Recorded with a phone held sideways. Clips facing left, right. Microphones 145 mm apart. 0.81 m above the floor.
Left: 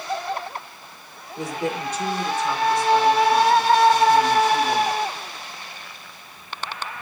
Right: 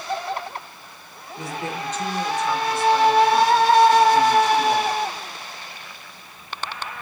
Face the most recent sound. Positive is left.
turn(degrees=-20)  # may be behind; listen again after turning